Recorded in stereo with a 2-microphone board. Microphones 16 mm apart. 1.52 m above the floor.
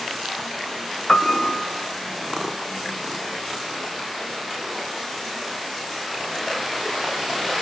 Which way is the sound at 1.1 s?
30° left (ahead or behind).